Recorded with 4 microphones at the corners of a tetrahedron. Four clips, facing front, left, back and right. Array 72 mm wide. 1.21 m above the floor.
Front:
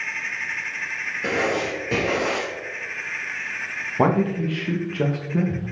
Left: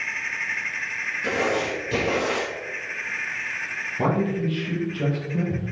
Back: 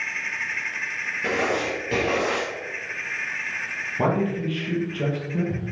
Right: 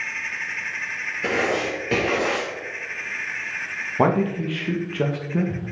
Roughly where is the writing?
Right.